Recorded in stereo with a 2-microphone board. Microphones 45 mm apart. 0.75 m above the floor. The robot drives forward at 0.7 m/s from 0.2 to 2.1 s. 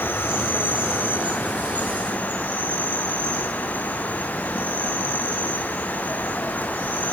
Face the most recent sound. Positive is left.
turn(degrees=35)  # may be behind; listen again after turning